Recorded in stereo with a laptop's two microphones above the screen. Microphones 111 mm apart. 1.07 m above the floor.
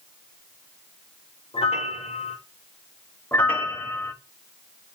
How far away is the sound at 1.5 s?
About 1.9 m.